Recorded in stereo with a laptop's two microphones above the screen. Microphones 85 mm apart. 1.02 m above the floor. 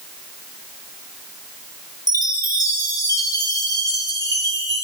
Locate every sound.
2.1 s a chime: 40° left (ahead or behind), 0.7 m